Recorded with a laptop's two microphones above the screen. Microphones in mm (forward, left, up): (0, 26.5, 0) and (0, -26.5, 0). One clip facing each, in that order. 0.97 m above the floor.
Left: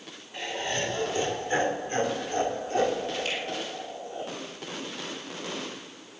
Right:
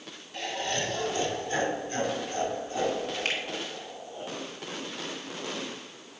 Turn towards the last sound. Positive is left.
turn(degrees=-55)  # may be behind; listen again after turning